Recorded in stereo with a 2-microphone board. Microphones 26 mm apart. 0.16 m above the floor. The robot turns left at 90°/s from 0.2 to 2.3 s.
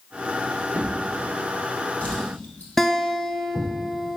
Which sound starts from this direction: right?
A drawer, at 0.7 s.